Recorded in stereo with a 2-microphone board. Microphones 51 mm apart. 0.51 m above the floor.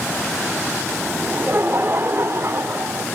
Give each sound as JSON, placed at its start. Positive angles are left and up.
{"t": 1.2, "sound": "laughter", "side_deg": -35, "distance_m": 1.5}